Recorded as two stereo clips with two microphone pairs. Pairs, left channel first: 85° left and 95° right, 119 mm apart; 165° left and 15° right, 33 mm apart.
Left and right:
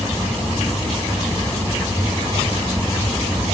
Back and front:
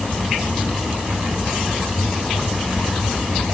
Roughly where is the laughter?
I don't hear laughter.